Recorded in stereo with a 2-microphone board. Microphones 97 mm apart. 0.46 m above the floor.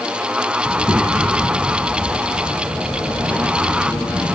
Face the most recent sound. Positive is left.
turn(degrees=25)  # may be behind; listen again after turning